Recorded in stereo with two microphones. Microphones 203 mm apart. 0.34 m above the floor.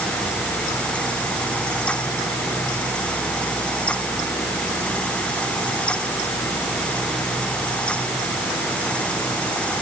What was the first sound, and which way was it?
Only background noise.